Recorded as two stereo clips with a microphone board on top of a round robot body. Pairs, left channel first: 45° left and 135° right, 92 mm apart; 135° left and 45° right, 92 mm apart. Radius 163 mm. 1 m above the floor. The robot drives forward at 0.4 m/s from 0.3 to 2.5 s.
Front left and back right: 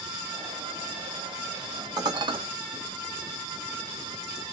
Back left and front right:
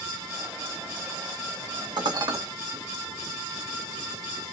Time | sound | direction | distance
2.0 | dishes clattering | 85° right | 0.6 m